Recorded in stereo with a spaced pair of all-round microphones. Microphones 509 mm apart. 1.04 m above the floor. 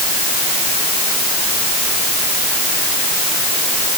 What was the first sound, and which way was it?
Only background noise.